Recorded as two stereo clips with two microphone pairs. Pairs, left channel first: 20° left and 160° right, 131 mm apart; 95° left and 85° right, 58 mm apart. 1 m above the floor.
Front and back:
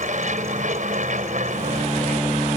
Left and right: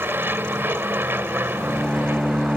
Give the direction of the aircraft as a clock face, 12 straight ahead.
5 o'clock.